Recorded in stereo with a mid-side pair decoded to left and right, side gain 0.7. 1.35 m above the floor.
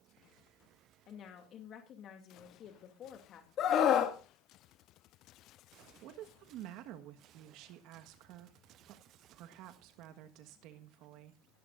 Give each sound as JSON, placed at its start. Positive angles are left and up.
{"t": 1.1, "sound": "a woman speaking", "azimuth_deg": 45, "distance_m": 2.5}
{"t": 3.6, "sound": "a scream", "azimuth_deg": 45, "distance_m": 1.9}
{"t": 6.0, "sound": "a woman speaking", "azimuth_deg": -60, "distance_m": 1.4}